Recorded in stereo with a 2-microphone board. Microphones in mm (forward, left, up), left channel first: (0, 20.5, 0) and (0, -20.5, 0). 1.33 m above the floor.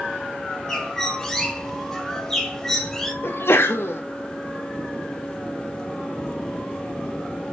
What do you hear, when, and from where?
0.7 s a bird: 10° left (ahead or behind), 2.5 m
3.2 s a sneeze: 75° left (ahead or behind), 2.5 m